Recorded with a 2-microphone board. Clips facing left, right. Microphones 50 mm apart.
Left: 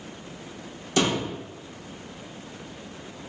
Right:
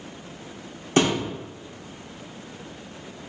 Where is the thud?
40° right (ahead or behind), 1.4 m.